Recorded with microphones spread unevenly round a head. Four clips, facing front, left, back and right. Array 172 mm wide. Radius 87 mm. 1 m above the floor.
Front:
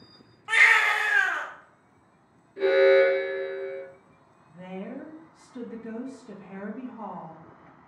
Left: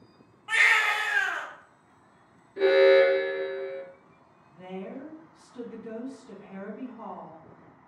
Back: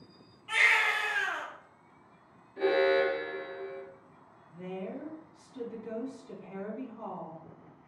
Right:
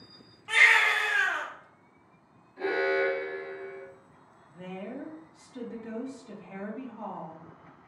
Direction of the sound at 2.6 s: 75° left.